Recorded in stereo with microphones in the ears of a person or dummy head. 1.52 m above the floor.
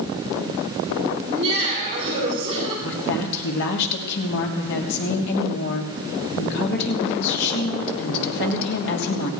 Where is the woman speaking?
60° left (ahead or behind), 3 m.